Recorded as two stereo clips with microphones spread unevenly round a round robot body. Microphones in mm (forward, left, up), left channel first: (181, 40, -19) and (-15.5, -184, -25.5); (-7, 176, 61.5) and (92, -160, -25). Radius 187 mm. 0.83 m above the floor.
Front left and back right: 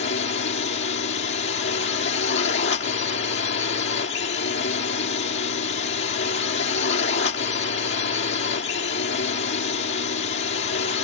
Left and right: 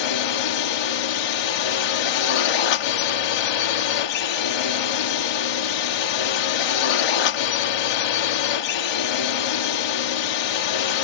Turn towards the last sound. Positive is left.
turn(degrees=110)